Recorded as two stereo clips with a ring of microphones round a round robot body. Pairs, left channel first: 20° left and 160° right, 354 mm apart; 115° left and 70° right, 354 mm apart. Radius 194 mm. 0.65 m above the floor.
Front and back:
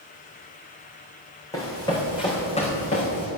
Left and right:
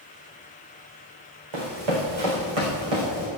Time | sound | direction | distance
1.5 | running footsteps | 60° right | 4 m